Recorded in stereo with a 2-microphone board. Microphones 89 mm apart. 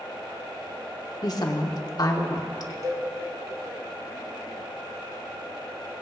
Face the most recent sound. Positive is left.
turn(degrees=-40)  # may be behind; listen again after turning